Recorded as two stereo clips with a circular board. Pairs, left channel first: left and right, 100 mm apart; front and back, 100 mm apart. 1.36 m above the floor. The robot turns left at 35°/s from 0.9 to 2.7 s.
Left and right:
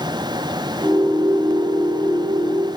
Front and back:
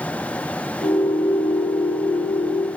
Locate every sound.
Only background noise.